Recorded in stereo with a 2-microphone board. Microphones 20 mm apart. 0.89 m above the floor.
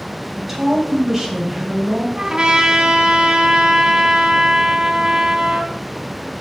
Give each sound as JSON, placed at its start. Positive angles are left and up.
{"t": 0.4, "sound": "a woman speaking", "side_deg": -10, "distance_m": 4.5}
{"t": 2.2, "sound": "a trumpet", "side_deg": -50, "distance_m": 1.7}